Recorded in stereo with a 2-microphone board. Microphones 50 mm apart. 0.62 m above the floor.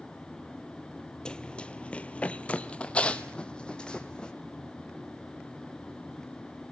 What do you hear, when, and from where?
1.2 s running footsteps: 15° left (ahead or behind), 0.7 m